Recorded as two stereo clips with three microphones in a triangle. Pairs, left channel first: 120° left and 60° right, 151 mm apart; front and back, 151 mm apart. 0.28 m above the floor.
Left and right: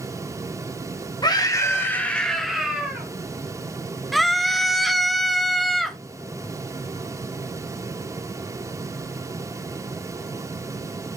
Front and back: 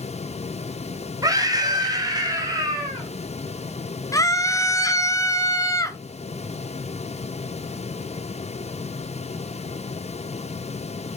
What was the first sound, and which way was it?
A scream, 145° left.